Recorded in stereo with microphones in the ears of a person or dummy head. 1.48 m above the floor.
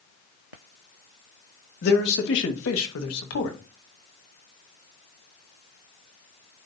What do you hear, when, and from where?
1.8 s a man speaking: 60° left (ahead or behind), 2 m; by 3.6 s 65° left (ahead or behind), 1.7 m